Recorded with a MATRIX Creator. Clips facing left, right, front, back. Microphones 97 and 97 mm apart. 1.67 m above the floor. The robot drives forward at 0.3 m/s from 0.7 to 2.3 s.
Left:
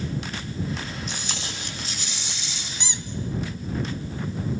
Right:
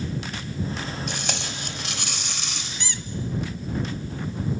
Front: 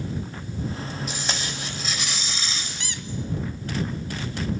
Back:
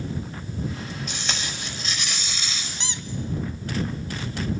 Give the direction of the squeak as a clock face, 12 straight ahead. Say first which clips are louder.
Left 2 dB, back 1 dB; 7 o'clock.